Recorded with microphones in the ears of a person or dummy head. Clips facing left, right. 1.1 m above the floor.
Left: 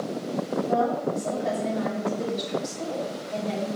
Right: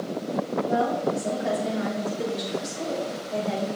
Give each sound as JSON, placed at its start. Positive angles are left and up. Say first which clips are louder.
{"t": 0.7, "sound": "a woman speaking", "louder": "even", "side_deg": -10, "distance_m": 3.0}